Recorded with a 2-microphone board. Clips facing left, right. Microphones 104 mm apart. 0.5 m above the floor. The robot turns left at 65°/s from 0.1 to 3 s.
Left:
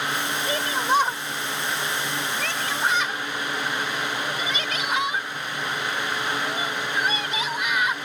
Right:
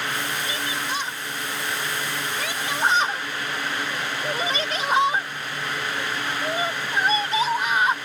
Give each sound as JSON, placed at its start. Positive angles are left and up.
{"t": 0.5, "sound": "a shout", "side_deg": 45}